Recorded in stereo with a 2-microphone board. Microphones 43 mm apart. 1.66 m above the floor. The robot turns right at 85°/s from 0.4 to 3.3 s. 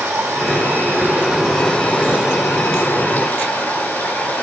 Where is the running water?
95° right, 5.5 m; by 4.4 s 150° left, 5.5 m.